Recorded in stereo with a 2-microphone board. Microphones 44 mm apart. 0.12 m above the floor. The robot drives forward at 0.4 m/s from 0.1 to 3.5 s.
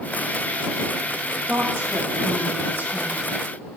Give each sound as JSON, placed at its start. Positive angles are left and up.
{"t": 1.5, "sound": "a woman speaking", "side_deg": -60, "distance_m": 4.0}